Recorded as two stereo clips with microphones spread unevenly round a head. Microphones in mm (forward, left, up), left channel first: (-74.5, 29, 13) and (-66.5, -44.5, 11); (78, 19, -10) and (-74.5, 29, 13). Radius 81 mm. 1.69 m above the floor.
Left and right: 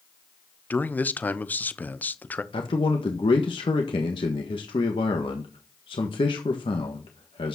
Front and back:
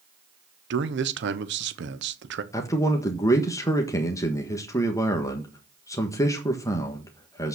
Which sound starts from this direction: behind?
A man speaking, at 0.7 s.